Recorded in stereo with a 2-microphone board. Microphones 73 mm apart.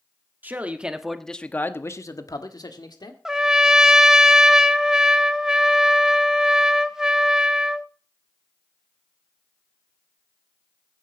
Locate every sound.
0.4 s a man speaking: 25° right (ahead or behind), 1.5 m; by 3.1 s 70° left (ahead or behind), 1.9 m
3.2 s a trumpet: 10° right (ahead or behind), 0.8 m